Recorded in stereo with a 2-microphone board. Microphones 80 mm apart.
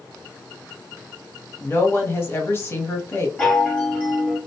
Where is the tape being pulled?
No tape being pulled in this recording.